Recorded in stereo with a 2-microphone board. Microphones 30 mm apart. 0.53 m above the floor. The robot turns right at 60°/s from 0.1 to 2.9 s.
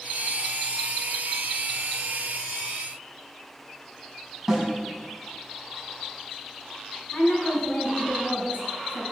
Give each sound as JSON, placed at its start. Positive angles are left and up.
{"t": 4.5, "sound": "a snare drum", "side_deg": -10, "distance_m": 5.0}
{"t": 7.1, "sound": "a woman speaking", "side_deg": 55, "distance_m": 4.0}